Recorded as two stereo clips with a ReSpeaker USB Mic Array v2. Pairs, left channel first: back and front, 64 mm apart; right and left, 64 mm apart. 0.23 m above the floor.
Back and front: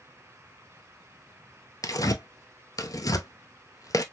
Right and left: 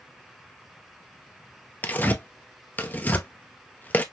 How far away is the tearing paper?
About 0.7 m.